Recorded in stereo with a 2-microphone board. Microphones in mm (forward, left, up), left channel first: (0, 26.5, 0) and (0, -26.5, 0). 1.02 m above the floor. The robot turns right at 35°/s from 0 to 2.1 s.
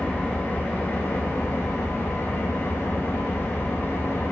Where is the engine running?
25° left, 0.9 m; by 4.3 s 100° left, 0.9 m.